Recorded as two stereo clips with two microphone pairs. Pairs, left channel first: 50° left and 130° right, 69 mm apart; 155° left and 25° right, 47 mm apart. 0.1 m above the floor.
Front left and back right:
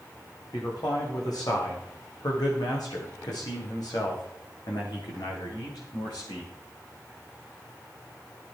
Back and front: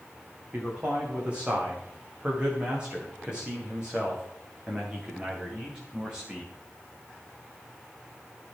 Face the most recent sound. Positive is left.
turn(degrees=50)